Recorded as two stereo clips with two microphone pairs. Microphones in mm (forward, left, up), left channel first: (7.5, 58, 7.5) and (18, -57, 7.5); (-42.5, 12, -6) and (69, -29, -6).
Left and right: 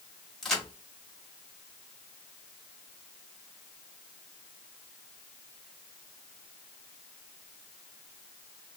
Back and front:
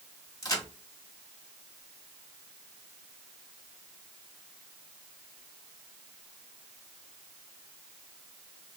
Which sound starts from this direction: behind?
A crack, at 0.4 s.